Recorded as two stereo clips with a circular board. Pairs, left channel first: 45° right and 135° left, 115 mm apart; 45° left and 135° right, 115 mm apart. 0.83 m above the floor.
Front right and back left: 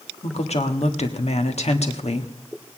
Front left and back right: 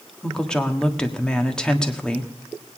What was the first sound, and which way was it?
A woman speaking, 35° right.